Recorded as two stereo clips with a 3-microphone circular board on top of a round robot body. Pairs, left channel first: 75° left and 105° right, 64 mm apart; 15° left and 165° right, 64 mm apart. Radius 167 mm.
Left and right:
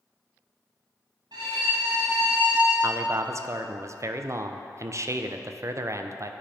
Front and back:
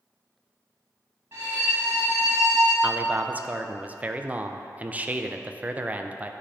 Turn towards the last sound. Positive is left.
turn(degrees=-110)